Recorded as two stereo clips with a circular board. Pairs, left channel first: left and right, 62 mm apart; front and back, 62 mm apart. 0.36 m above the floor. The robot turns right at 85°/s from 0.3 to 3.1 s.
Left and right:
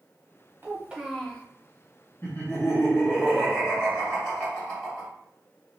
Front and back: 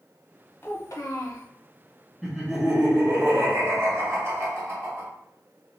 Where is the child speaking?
40° right, 0.9 m; by 1.5 s 30° left, 0.9 m.